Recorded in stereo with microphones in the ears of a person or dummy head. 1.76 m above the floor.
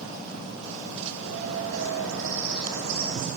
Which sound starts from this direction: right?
A bird, at 1.1 s.